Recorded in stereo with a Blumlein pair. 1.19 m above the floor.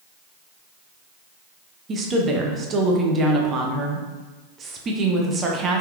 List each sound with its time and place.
1.9 s a woman speaking: 20° right, 0.6 m